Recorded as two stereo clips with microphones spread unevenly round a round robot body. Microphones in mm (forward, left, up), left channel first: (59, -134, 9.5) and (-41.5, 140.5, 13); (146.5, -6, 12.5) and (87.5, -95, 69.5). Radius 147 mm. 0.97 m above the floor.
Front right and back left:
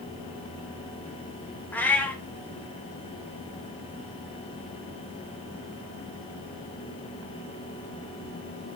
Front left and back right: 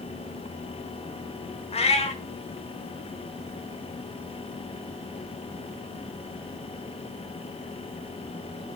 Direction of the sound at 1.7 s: 10° left.